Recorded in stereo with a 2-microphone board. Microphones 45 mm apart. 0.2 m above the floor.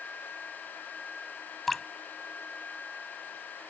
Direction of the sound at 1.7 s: Centre (ahead or behind).